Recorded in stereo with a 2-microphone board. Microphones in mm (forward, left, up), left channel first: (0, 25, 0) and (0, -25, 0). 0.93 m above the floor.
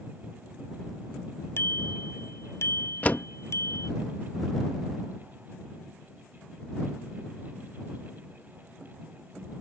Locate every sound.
1.6 s a bicycle bell: 55° left (ahead or behind); by 3.9 s 65° left (ahead or behind)
3.0 s a door slam: 30° left (ahead or behind)